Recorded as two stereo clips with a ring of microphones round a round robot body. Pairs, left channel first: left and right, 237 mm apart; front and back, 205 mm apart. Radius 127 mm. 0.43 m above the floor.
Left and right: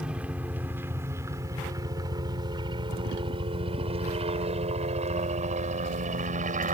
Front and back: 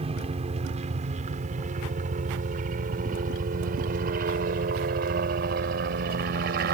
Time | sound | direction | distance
0.0 | a helicopter | 170° right | ?